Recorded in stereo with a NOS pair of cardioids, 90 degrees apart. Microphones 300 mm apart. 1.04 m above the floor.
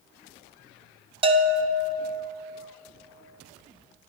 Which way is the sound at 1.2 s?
20° right.